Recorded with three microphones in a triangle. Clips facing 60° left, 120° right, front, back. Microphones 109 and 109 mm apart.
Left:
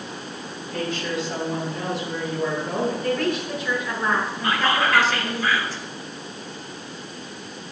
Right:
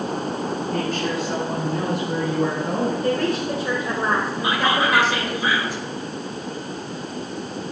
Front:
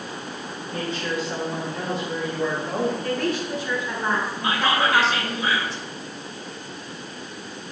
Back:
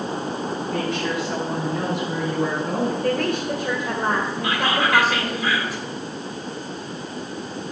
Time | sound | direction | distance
0.7 | a woman speaking | 160° right | 6.5 m
3.0 | a woman speaking | 170° right | 2 m
4.4 | whispering | 50° right | 1.8 m